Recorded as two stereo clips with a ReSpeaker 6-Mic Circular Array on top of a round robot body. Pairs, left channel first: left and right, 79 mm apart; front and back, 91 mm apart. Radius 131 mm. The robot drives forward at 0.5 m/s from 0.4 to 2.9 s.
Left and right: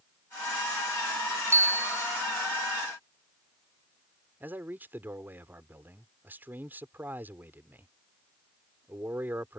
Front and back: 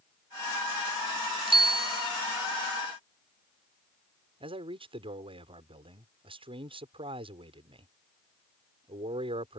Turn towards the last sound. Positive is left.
turn(degrees=-160)